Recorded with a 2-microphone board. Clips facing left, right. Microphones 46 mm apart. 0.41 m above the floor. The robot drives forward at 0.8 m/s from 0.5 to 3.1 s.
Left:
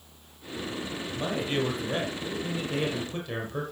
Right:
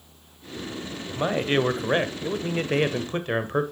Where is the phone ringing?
I don't hear a phone ringing.